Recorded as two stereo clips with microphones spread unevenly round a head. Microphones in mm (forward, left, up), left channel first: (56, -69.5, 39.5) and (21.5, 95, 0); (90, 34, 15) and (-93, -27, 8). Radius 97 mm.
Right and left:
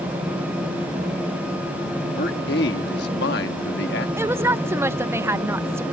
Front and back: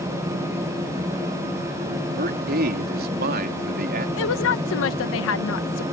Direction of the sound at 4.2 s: 30° left.